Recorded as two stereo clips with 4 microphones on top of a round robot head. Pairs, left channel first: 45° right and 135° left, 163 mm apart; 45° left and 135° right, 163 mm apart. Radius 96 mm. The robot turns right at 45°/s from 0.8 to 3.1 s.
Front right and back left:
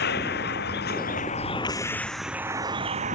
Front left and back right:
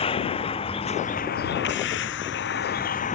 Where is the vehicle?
15° right; by 3.1 s 90° left.